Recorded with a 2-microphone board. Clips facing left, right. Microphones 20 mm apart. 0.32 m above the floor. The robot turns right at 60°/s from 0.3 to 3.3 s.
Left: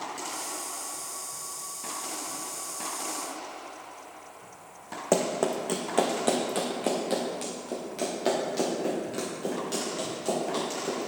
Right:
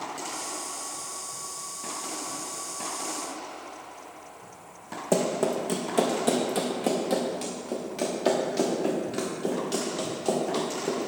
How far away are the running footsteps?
About 1.3 m.